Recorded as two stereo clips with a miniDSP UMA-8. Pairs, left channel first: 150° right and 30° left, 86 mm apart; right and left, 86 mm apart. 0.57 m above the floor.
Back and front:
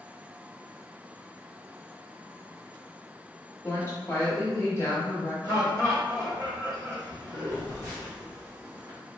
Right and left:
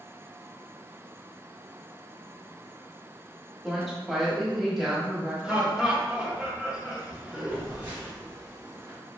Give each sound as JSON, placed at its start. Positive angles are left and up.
{"t": 3.6, "sound": "a woman speaking", "azimuth_deg": 180, "distance_m": 1.0}
{"t": 5.4, "sound": "laughter", "azimuth_deg": 15, "distance_m": 1.3}
{"t": 7.5, "sound": "a phone buzzing", "azimuth_deg": 30, "distance_m": 1.5}